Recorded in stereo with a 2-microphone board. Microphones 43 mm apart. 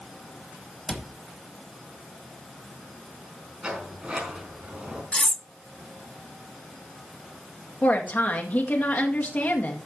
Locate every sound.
0.9 s a cupboard door: 10° left (ahead or behind), 1.0 m
3.6 s a sliding door: 25° right (ahead or behind), 4.5 m
5.1 s cutlery clinking: 30° left (ahead or behind), 0.6 m
7.8 s a woman speaking: 45° left (ahead or behind), 1.9 m